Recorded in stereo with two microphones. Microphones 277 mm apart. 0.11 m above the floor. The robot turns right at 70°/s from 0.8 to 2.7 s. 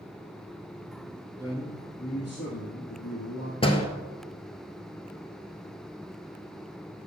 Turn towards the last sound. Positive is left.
turn(degrees=20)  # may be behind; listen again after turning